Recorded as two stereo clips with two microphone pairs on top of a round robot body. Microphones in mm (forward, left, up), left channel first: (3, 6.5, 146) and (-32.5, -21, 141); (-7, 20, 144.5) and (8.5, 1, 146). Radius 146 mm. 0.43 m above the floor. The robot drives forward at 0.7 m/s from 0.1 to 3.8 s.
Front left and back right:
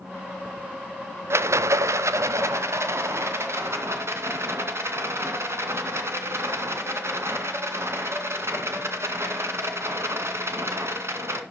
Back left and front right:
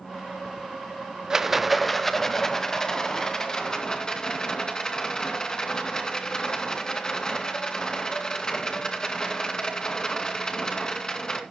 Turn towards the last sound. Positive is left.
turn(degrees=-165)